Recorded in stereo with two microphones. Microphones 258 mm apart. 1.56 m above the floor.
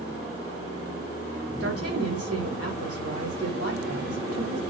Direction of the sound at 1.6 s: 65° right (ahead or behind).